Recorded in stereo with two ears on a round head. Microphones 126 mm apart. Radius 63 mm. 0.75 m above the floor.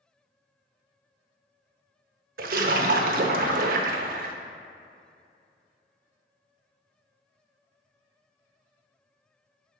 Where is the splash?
65° right (ahead or behind), 0.8 m.